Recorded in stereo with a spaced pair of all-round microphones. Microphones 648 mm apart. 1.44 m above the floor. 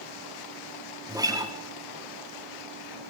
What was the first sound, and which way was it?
A guitar, 5° right (ahead or behind).